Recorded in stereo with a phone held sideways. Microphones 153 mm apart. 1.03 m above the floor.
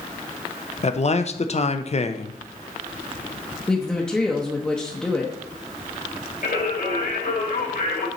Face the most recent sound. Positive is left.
turn(degrees=80)